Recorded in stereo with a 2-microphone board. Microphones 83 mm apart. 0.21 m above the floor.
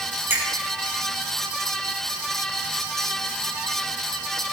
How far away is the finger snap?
About 6 m.